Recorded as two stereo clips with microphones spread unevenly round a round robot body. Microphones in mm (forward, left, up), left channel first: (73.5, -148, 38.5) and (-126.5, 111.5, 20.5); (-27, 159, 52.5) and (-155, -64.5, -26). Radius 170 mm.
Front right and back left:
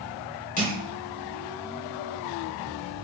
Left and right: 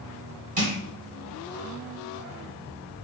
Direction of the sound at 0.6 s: 110° right.